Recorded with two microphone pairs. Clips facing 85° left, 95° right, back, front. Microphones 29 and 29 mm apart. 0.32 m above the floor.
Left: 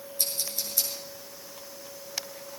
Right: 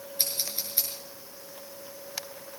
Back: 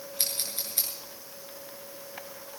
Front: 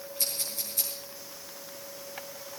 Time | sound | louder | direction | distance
0.2 | scissors | even, back 1 dB | 145° right | 6 m